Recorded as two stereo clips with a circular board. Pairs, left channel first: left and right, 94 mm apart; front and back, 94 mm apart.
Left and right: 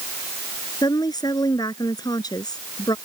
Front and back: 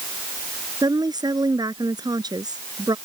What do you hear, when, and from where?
0.8 s a woman speaking: 135° left